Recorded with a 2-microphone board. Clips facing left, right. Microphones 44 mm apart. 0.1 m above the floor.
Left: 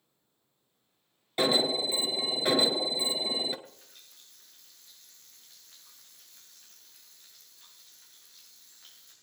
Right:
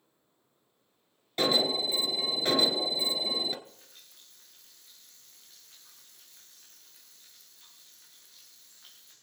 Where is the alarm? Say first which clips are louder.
Left 1 dB; 10° left (ahead or behind), 1.1 m.